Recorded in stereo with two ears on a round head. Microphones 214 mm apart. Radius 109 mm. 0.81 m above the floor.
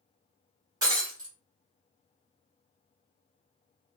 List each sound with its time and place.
0.8 s breaking glass: 15° right (ahead or behind), 1.9 m